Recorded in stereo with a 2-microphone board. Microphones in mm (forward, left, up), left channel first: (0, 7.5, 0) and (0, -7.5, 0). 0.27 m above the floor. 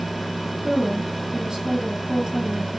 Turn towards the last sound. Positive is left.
turn(degrees=-40)  # may be behind; listen again after turning